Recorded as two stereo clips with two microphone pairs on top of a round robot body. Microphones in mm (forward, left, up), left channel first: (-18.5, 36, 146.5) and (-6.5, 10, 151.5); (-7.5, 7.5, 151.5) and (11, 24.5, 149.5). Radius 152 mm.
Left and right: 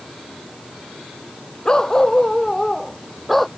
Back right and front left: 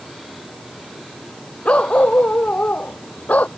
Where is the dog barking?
175° right; by 3.5 s 155° right.